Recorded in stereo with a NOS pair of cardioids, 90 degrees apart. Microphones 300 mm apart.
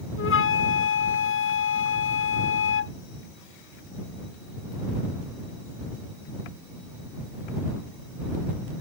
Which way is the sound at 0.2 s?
45° left.